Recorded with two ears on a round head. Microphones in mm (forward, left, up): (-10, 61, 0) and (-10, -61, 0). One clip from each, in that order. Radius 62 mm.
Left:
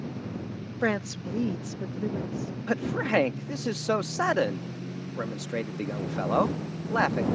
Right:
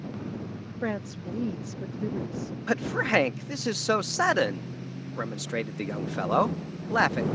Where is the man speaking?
25° right (ahead or behind).